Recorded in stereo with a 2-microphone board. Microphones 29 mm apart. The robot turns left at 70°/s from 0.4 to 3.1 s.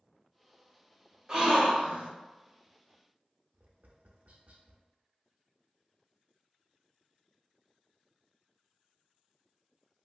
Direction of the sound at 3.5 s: 55° right (ahead or behind).